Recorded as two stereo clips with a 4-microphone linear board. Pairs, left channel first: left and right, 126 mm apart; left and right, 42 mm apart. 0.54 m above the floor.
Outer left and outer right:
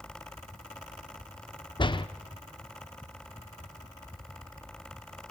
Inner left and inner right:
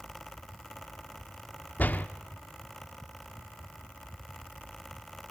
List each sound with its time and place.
1.8 s a door slam: 40° left (ahead or behind), 0.8 m